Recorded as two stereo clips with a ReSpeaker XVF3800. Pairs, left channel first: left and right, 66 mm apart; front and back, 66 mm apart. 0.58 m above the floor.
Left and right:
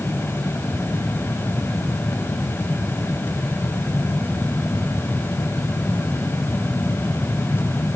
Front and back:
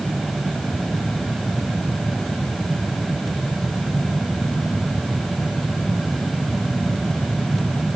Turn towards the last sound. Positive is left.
No sound to turn to.